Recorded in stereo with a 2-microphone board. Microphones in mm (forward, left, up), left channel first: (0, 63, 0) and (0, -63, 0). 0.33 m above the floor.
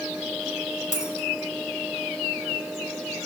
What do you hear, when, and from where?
0.9 s a dropped coin: 70° left (ahead or behind), 1.9 m